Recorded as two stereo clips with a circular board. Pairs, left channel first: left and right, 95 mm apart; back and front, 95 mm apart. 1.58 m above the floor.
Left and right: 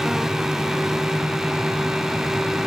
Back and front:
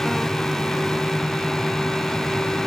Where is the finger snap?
No finger snap in this recording.